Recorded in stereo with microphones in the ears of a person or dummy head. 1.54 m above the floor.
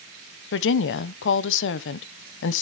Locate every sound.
0.5 s a woman speaking: 70° left (ahead or behind), 0.8 m